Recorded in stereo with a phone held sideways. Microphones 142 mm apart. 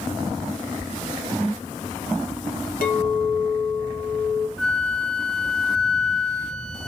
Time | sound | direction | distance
2.8 | a clink | 80° left | 1.4 m
4.6 | a flute | 5° left (ahead or behind) | 1.0 m